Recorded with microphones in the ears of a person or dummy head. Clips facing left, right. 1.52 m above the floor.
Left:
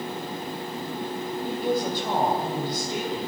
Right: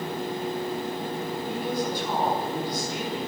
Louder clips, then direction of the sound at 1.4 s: Left 4 dB; 35° left (ahead or behind).